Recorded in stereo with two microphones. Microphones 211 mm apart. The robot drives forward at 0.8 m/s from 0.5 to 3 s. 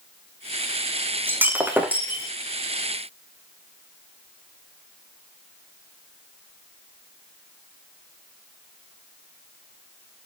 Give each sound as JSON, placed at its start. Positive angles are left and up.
{"t": 1.3, "sound": "breaking glass", "side_deg": -10, "distance_m": 2.5}